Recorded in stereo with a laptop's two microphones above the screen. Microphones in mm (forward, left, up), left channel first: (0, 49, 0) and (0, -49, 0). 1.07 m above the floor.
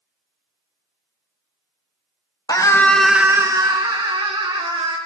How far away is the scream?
About 1.2 m.